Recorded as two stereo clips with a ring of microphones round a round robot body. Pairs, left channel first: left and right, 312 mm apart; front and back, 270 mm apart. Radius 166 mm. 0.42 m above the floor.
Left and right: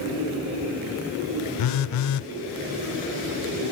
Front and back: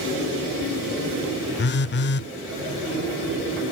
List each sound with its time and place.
1.6 s a phone buzzing: 55° left, 0.5 m